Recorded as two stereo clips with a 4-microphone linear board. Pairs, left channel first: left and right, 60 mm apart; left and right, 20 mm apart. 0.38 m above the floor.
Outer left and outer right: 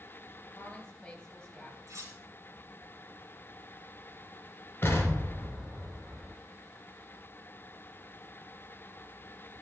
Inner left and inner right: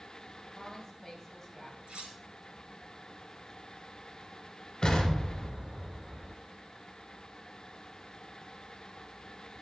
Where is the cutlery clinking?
80° right, 3 m.